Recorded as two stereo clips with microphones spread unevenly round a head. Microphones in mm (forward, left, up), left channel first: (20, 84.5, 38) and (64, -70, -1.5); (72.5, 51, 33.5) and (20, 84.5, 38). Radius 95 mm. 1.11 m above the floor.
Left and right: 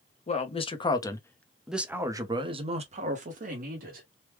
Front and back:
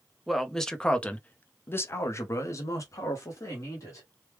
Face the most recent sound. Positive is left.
turn(degrees=-70)